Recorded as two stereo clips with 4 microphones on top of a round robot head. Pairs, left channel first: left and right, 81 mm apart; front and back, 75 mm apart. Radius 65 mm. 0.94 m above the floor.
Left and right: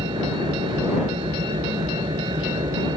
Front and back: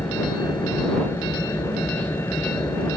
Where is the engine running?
70° right.